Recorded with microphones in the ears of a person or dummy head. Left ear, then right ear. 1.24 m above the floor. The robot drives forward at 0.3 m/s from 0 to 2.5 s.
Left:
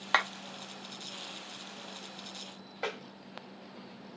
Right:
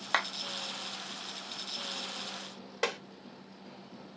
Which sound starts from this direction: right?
Tapping, at 2.8 s.